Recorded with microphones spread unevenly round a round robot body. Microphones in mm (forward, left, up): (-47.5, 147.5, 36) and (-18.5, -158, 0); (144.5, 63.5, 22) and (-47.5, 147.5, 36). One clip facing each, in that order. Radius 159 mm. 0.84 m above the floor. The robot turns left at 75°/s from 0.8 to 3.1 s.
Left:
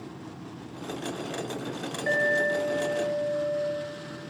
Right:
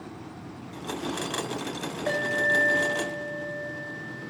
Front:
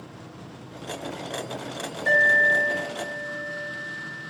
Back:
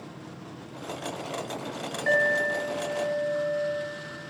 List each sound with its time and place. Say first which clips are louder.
2.1 s an alarm: left 3 dB, even; 5° left, 3 m; by 4.3 s 75° right, 3 m